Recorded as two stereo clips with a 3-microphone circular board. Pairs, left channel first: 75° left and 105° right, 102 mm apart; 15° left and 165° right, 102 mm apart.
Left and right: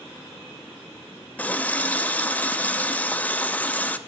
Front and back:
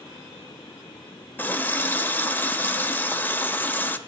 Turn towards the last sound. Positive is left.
turn(degrees=35)